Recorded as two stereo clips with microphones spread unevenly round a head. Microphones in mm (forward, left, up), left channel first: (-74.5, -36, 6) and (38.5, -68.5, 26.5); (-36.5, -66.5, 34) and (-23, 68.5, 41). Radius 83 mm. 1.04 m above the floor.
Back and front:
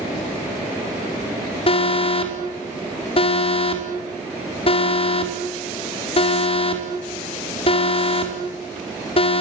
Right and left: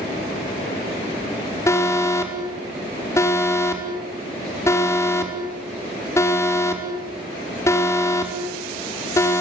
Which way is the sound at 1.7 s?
165° right.